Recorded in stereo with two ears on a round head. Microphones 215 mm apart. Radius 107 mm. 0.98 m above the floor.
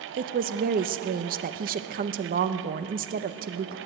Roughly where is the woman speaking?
Right.